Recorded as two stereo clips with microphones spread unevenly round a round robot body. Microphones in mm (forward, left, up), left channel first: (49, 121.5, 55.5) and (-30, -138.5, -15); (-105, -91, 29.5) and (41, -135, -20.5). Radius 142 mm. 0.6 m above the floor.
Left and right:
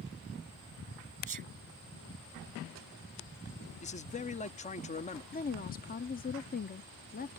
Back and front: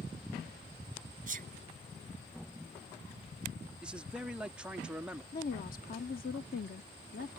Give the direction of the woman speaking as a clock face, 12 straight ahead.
7 o'clock.